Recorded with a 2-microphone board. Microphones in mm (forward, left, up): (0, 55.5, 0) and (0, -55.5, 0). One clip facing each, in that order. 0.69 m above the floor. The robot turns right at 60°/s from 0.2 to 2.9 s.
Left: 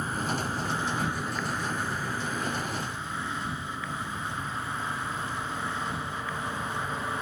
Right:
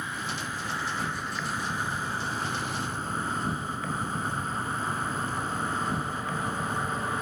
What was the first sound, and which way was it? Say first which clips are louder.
An insect: left 4 dB; 105° left.